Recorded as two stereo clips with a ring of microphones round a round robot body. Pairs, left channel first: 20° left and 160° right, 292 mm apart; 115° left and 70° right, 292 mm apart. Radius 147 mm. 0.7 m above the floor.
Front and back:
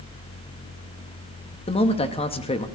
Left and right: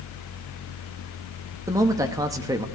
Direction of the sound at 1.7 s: 10° right.